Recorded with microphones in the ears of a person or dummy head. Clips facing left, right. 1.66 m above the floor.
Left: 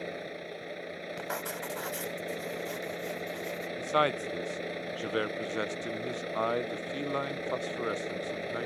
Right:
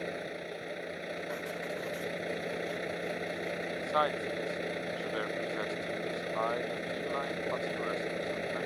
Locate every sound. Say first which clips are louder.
0.0 s a vehicle: right 1 dB; centre (ahead or behind)
1.2 s writing: even; 75° left (ahead or behind)
3.8 s a man speaking: left 4 dB; 35° left (ahead or behind)